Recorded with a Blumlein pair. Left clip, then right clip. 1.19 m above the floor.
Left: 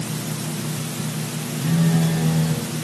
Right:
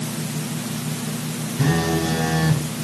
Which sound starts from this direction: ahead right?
A phone buzzing, at 1.6 s.